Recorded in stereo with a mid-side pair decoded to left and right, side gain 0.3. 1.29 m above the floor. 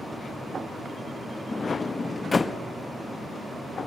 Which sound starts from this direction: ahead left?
A sliding door, at 1.5 s.